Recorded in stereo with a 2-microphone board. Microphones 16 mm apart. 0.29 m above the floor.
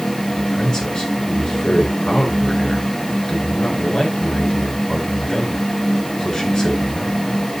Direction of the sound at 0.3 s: 50° left (ahead or behind).